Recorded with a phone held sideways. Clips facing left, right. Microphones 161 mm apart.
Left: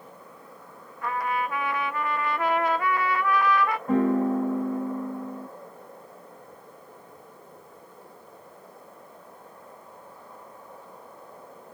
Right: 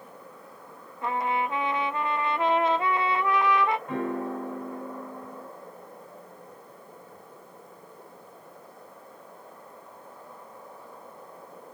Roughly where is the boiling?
I don't hear boiling.